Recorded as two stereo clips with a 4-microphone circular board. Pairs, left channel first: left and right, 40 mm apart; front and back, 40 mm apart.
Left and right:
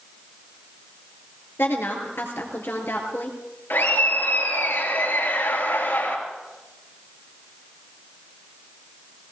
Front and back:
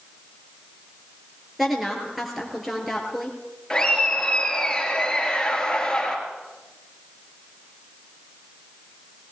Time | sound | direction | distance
1.6 | a woman speaking | 95° left | 4 m
3.7 | laughter | 75° left | 4 m